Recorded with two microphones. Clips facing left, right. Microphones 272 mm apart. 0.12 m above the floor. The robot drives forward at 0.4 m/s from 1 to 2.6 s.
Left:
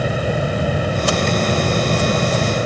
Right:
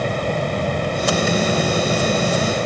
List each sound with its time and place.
Only background noise.